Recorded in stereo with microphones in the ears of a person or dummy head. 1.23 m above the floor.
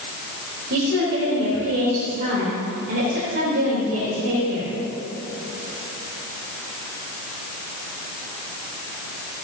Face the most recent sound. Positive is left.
turn(degrees=-75)  # may be behind; listen again after turning